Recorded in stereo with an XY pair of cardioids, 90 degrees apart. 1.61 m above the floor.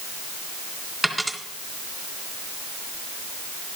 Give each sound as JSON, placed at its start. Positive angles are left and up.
{"t": 1.0, "sound": "a dropped coin", "azimuth_deg": -10, "distance_m": 3.0}